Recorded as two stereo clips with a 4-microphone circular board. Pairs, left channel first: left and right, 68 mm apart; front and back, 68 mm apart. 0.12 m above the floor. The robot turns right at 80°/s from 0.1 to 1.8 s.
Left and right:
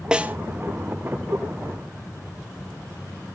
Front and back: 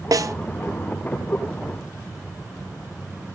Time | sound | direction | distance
0.1 | a snare drum | 170° right | 0.8 m